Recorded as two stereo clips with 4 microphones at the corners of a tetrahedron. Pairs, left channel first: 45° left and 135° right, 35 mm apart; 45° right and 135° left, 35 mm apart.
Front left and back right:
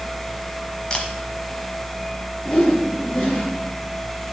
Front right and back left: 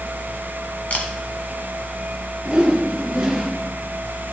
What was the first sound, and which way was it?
A camera shutter, 10° right.